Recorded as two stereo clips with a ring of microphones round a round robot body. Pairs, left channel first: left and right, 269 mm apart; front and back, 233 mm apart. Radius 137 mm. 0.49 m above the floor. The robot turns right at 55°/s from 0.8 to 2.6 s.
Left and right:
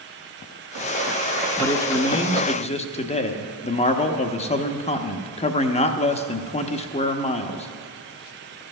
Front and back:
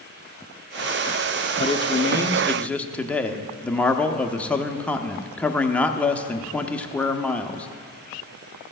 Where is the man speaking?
20° left, 0.7 m; by 7.7 s 75° left, 0.7 m.